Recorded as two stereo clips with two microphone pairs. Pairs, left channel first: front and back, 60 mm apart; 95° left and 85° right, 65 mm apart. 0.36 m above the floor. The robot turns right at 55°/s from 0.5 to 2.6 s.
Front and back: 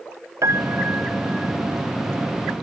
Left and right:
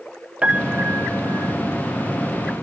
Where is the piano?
155° right; by 1.5 s 100° right.